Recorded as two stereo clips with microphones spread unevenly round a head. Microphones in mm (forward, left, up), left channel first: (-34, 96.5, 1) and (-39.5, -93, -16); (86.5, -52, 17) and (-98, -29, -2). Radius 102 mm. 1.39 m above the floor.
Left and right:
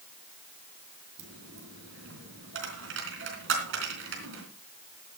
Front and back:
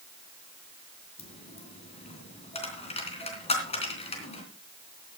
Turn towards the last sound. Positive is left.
turn(degrees=-60)